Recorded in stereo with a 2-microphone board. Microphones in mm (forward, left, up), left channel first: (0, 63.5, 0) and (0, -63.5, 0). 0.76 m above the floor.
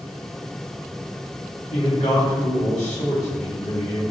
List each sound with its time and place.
1.7 s a man speaking: 65° left (ahead or behind), 1.3 m